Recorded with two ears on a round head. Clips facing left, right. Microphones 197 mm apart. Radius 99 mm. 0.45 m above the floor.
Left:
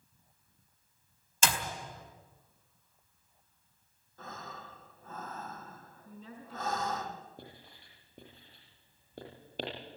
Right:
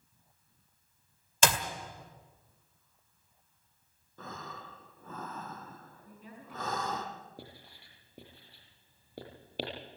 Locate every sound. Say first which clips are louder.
1.4 s a clap: right 4 dB; 55° right (ahead or behind), 1.9 m
4.2 s breathing: right 1 dB; 75° right (ahead or behind), 2.5 m
6.0 s a woman speaking: left 3 dB; 15° right (ahead or behind), 5 m
7.4 s writing: right 1 dB; 10° right (ahead or behind), 6 m